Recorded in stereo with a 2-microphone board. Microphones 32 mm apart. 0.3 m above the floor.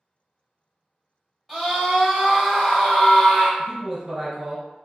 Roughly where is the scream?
Centre.